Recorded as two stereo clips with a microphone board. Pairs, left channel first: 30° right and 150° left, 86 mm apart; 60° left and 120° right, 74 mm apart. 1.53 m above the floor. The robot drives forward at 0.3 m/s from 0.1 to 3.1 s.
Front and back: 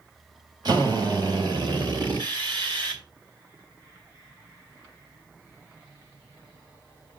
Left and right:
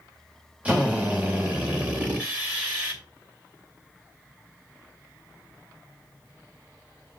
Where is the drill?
170° left, 2 m; by 3.0 s 175° left, 2.5 m.